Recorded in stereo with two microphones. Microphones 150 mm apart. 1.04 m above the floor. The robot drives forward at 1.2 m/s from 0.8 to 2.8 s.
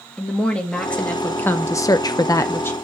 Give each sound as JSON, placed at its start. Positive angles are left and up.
{"t": 0.2, "sound": "a woman speaking", "side_deg": 10, "distance_m": 1.6}